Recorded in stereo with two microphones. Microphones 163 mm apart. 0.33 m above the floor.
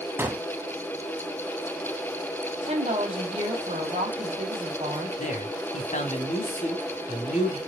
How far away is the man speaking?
About 1.9 m.